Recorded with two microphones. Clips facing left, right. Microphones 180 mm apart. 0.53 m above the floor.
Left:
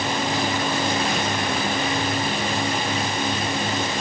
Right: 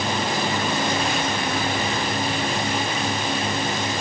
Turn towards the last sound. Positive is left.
No sound to turn to.